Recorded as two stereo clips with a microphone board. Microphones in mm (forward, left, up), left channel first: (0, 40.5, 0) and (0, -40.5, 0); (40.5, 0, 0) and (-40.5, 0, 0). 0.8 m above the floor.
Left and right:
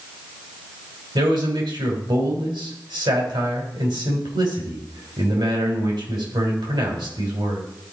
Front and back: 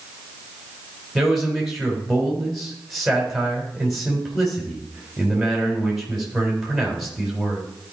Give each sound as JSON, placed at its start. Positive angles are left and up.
{"t": 1.1, "sound": "a man speaking", "azimuth_deg": -95, "distance_m": 3.5}